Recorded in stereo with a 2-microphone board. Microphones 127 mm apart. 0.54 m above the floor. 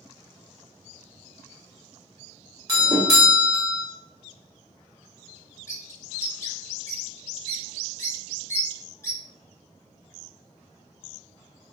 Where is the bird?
20° left (ahead or behind), 0.8 m.